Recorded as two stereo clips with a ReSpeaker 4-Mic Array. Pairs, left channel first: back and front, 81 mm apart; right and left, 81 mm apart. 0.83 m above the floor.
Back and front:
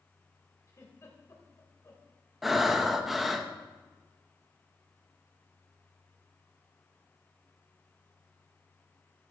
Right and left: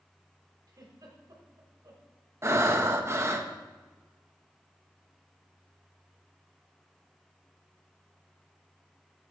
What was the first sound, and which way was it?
A giggle, 130° left.